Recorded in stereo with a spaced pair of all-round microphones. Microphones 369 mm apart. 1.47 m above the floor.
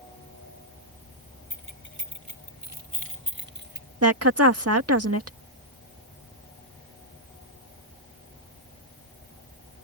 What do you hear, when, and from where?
1.5 s keys jangling: 60° right (ahead or behind); by 3.9 s 25° right (ahead or behind)
4.0 s a woman speaking: 40° right (ahead or behind)